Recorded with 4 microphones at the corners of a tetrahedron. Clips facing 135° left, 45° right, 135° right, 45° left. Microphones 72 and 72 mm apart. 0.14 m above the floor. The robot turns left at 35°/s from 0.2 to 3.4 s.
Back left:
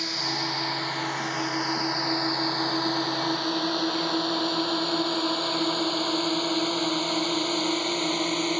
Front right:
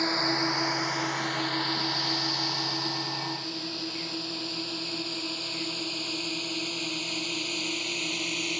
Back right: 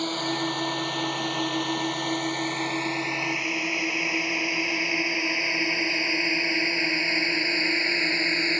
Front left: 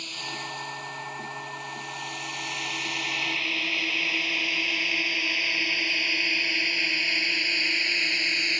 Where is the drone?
100° right; by 8.6 s 165° left.